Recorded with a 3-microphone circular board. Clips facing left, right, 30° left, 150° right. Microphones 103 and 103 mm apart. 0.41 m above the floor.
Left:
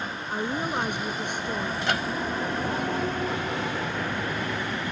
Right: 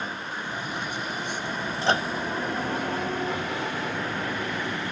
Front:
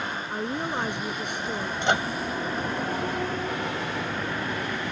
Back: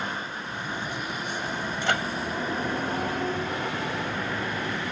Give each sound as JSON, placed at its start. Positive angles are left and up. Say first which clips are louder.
{"t": 0.3, "sound": "a woman speaking", "louder": "left 5 dB, front 5 dB", "azimuth_deg": 55}
{"t": 1.8, "sound": "a microwave", "louder": "right 6 dB, front 3 dB", "azimuth_deg": -35}